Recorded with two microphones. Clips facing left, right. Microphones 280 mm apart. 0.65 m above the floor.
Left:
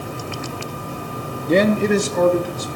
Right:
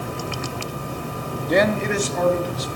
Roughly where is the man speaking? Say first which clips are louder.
Left 4 dB; left.